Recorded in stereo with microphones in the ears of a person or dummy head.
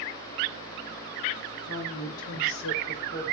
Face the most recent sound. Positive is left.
turn(degrees=30)  # may be behind; listen again after turning